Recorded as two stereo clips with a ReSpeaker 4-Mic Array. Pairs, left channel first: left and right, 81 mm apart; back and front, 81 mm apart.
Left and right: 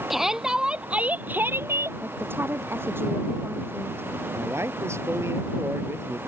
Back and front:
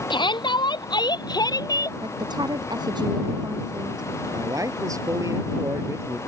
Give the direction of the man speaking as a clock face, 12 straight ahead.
1 o'clock.